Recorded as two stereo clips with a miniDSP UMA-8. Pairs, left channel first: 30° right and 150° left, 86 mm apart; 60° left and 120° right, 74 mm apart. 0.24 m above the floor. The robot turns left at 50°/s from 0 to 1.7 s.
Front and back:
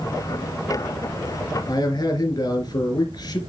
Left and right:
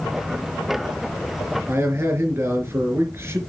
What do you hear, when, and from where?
1.7 s a man speaking: 65° right, 3.5 m